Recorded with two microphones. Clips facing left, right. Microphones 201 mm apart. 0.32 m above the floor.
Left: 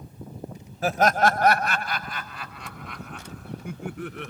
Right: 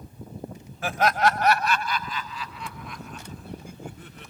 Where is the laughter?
35° left (ahead or behind); by 4.3 s 75° left (ahead or behind).